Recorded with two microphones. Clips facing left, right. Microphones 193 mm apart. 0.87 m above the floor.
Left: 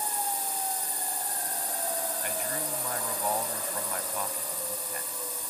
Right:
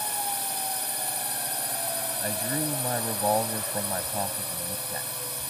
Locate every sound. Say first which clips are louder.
0.0 s a drone: even; 70° right (ahead or behind)
2.2 s a man speaking: right 5 dB; 40° right (ahead or behind)